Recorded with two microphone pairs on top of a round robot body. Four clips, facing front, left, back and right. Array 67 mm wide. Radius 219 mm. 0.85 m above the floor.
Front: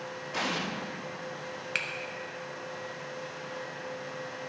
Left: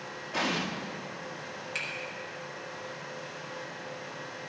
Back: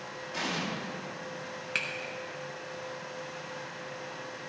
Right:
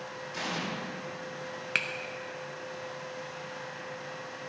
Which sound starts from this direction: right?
A finger snap, at 1.8 s.